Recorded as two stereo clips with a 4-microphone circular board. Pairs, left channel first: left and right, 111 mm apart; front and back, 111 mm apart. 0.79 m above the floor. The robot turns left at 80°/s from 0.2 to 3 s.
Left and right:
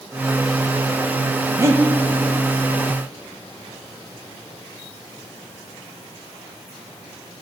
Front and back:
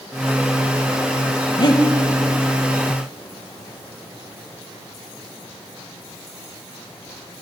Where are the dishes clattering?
I don't hear dishes clattering.